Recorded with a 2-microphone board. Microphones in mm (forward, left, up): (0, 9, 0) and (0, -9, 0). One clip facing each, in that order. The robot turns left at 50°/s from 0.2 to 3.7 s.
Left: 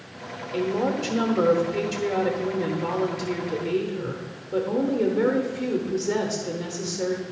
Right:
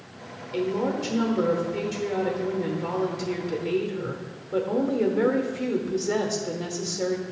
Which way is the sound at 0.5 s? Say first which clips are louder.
Left 1 dB; 10° right (ahead or behind).